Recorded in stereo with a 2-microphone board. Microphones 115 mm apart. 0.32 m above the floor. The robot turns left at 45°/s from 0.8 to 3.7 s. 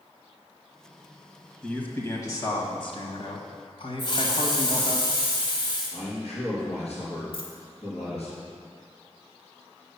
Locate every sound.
1.6 s a man speaking: 170° left, 1.6 m; by 5.0 s 80° left, 1.6 m
4.0 s a hiss: 45° left (ahead or behind), 1.8 m
5.9 s a man speaking: 60° left (ahead or behind), 4 m
7.3 s a dropped coin: 50° left (ahead or behind), 1.5 m